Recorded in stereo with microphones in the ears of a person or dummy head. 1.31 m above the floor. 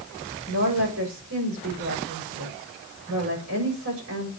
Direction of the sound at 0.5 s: 85° right.